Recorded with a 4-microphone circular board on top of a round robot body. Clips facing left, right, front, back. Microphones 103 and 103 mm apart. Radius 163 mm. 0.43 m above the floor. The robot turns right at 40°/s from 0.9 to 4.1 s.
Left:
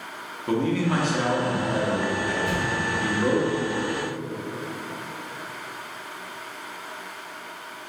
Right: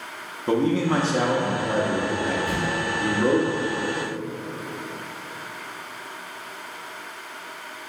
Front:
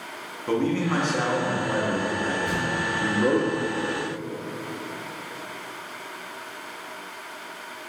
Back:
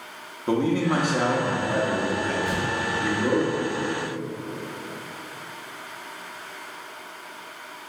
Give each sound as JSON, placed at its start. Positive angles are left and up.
{"t": 0.5, "sound": "a man speaking", "azimuth_deg": -120, "distance_m": 0.8}
{"t": 2.5, "sound": "an explosion", "azimuth_deg": 95, "distance_m": 1.7}